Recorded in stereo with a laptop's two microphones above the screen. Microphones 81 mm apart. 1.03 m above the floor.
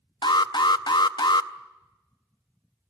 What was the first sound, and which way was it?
An alarm, 65° left (ahead or behind).